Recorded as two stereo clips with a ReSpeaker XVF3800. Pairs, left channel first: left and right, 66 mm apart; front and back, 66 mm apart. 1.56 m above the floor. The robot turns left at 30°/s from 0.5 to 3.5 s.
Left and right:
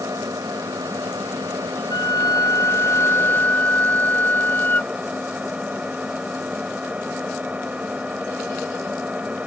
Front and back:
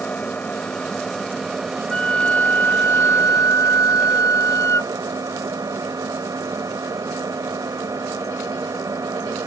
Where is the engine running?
70° right; by 9.5 s 160° right.